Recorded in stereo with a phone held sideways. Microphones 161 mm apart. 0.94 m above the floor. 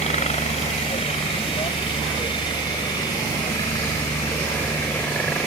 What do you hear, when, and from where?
0.0 s a helicopter: 40° left (ahead or behind); by 5.5 s 10° left (ahead or behind)